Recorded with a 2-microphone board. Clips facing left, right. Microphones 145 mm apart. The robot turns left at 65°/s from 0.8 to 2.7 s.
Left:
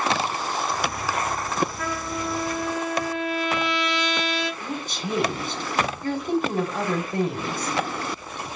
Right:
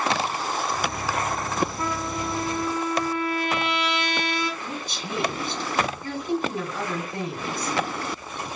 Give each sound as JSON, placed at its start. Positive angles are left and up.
{"t": 1.8, "sound": "a trumpet", "azimuth_deg": -25, "distance_m": 4.5}
{"t": 4.6, "sound": "a woman speaking", "side_deg": 50, "distance_m": 1.7}